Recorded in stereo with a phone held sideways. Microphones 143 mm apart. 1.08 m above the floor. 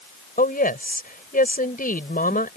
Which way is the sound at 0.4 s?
85° left.